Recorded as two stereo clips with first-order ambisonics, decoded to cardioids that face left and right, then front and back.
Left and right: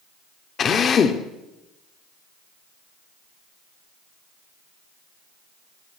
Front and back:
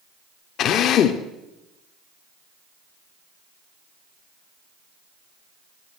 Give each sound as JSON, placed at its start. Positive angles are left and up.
{"t": 0.6, "sound": "a drill", "azimuth_deg": 35, "distance_m": 0.9}